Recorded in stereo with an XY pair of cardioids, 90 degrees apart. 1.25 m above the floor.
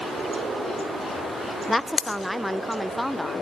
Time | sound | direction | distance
1.7 | a woman speaking | straight ahead | 0.5 m